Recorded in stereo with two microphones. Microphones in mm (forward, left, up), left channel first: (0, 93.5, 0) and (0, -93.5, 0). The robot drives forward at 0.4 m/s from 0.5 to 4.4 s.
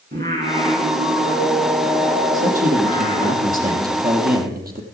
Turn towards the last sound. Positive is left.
turn(degrees=-50)  # may be behind; listen again after turning